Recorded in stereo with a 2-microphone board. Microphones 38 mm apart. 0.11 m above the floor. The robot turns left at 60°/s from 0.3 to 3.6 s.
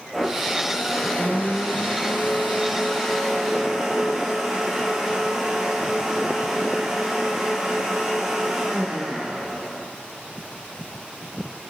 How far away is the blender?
About 2.0 m.